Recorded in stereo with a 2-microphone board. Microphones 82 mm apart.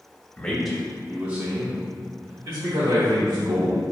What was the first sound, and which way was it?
A man speaking, 15° left (ahead or behind).